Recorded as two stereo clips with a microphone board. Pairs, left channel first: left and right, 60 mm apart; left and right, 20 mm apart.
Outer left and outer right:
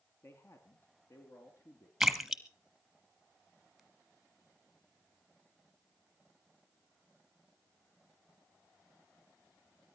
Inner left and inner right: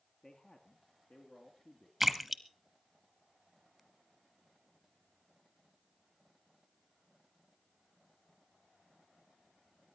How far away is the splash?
About 1.2 m.